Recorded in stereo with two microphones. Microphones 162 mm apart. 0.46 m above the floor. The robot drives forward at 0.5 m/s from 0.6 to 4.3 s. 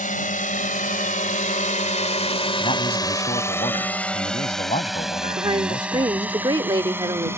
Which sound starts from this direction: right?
A woman speaking, at 5.3 s.